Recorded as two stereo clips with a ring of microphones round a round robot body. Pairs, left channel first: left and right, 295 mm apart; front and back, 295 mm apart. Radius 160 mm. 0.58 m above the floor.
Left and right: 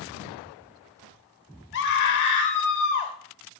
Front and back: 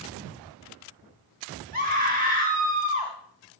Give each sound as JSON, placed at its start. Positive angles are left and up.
{"t": 1.7, "sound": "a scream", "azimuth_deg": 130, "distance_m": 1.0}